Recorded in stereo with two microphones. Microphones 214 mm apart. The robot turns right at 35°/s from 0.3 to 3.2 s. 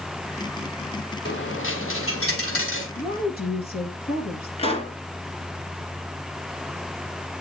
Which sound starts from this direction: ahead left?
A dropped coin, at 1.2 s.